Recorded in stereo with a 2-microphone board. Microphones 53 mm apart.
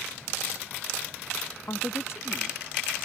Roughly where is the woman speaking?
Left.